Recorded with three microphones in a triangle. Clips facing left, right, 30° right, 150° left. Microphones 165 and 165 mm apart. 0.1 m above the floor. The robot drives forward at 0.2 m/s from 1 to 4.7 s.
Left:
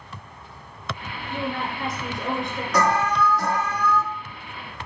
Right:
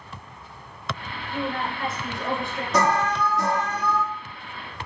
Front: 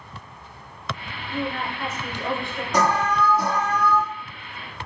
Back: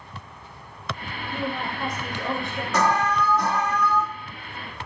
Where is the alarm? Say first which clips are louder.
Left 1 dB, front 1 dB; 80° right, 1.9 m; by 4.0 s 100° right, 1.9 m.